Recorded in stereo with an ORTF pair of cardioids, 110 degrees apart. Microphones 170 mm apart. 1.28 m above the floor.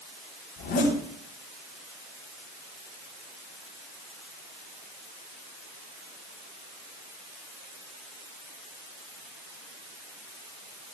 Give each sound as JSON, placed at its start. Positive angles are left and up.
{"t": 0.6, "sound": "a zipper", "azimuth_deg": 70, "distance_m": 3.0}